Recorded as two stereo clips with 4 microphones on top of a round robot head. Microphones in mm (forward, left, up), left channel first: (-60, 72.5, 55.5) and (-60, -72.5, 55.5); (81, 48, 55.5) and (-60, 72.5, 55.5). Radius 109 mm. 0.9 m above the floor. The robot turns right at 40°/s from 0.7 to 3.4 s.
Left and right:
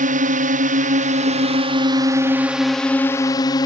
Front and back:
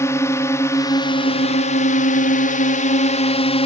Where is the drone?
80° right; by 3.7 s 30° left.